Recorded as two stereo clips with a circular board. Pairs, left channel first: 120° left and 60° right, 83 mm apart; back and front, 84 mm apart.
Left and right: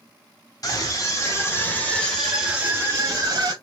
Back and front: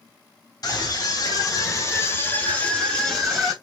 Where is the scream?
150° left, 2.5 m; by 3.5 s 75° right, 1.9 m.